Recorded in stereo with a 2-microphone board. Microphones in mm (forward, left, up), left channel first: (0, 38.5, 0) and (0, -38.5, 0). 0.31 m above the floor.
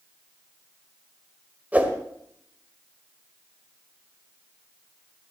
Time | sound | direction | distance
1.7 | a whoosh | 20° right (ahead or behind) | 1.5 m